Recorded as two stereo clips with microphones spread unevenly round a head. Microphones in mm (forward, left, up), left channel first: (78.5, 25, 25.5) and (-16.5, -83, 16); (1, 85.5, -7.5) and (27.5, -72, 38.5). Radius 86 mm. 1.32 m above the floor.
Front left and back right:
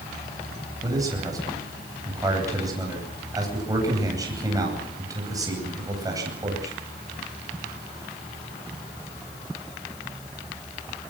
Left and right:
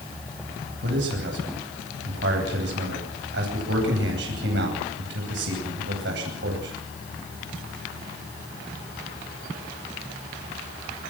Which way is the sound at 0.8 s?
65° right.